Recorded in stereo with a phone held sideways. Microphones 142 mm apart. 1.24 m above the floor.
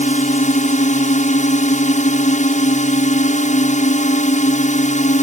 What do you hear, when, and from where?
0.0 s a drone: 60° left (ahead or behind)